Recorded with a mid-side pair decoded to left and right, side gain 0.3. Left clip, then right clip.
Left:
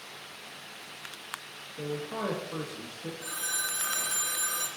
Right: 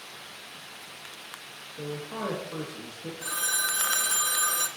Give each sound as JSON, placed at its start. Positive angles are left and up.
{"t": 1.8, "sound": "a man speaking", "azimuth_deg": 10, "distance_m": 1.3}
{"t": 3.2, "sound": "a phone ringing", "azimuth_deg": -55, "distance_m": 0.7}